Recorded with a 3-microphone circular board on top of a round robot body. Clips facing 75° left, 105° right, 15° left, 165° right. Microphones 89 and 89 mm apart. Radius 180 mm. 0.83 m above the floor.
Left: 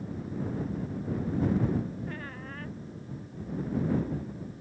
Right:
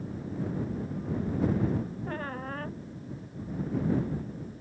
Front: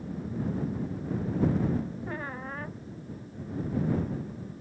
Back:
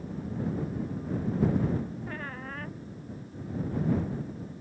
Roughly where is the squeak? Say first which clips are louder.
Right 4 dB, front 2 dB; ahead right.